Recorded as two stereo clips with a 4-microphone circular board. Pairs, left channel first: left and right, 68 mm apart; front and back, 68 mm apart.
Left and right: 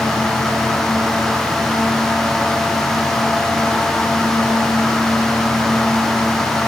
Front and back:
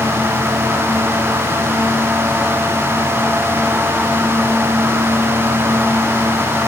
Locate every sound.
Only background noise.